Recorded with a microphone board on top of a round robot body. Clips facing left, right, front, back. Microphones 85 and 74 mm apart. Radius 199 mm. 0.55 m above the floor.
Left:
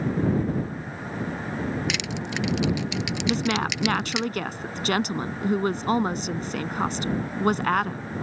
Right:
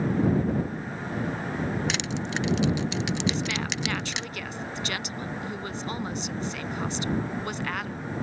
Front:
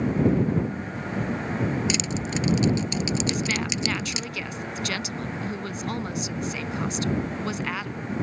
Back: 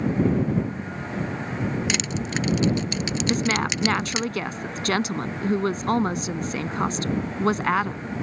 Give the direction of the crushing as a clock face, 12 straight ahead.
5 o'clock.